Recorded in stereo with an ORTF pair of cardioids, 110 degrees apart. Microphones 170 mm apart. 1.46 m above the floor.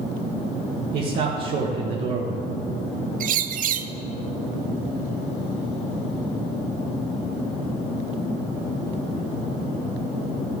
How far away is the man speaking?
About 1.6 m.